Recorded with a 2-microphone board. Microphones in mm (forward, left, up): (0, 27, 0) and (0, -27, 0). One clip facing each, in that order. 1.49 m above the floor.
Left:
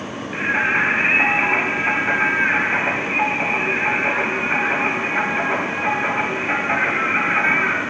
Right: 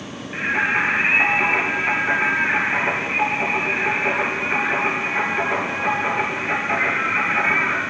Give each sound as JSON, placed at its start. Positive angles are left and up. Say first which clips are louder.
{"t": 0.3, "sound": "singing", "louder": "left 1 dB", "side_deg": 15, "distance_m": 1.6}